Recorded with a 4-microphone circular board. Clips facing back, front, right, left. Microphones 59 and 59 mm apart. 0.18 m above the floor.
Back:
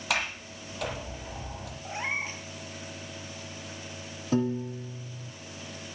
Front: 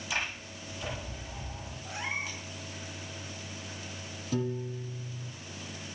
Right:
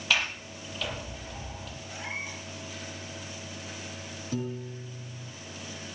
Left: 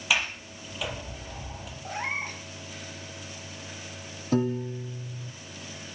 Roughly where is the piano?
Behind left.